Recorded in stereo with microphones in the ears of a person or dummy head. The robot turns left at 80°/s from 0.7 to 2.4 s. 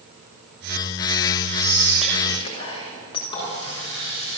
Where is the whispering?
140° right, 6.5 m; by 3.2 s 155° left, 6.5 m.